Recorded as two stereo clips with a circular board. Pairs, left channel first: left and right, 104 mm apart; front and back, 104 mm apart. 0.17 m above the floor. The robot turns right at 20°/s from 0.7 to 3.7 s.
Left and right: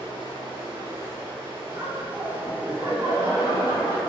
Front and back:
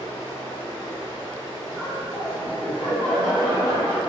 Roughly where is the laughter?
Right.